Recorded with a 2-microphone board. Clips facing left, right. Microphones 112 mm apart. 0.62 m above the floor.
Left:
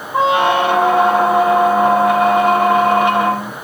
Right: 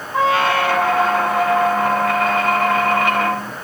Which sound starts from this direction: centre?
A squeak, at 0.1 s.